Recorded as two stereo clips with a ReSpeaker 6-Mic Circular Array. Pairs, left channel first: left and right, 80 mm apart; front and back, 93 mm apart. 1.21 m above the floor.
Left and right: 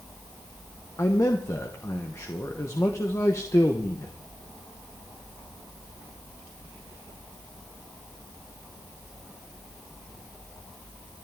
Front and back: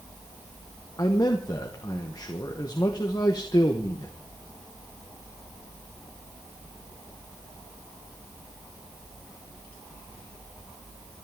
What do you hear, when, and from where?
1.0 s a man speaking: 40° left, 1.2 m